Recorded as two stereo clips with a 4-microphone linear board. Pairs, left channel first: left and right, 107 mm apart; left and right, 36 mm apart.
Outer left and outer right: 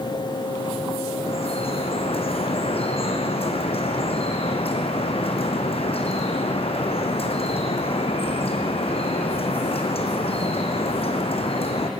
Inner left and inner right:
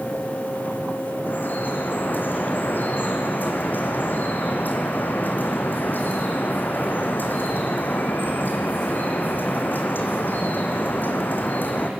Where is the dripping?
65° left (ahead or behind), 2.5 m.